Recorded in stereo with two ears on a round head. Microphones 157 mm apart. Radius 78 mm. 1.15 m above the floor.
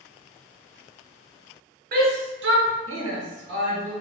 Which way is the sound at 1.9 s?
55° right (ahead or behind).